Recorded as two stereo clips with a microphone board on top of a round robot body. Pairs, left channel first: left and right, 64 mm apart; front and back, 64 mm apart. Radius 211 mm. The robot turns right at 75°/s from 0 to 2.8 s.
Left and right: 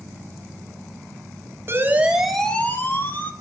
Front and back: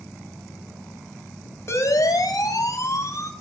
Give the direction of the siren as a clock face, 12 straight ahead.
1 o'clock.